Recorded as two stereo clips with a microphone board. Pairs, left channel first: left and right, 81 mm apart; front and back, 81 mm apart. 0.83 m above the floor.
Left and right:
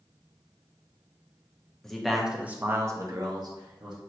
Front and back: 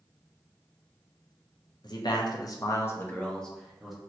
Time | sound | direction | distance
1.8 | a man speaking | 10° left | 0.7 m